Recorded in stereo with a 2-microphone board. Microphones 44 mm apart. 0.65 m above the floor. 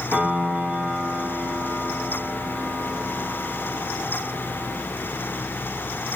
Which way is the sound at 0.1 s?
40° right (ahead or behind).